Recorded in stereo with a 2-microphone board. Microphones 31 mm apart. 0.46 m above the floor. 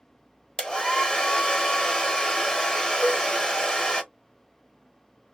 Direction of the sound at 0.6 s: 35° left (ahead or behind).